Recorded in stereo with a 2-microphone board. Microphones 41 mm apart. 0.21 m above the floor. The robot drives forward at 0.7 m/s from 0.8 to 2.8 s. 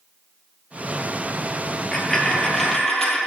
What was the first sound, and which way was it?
A dropped coin, 20° left (ahead or behind).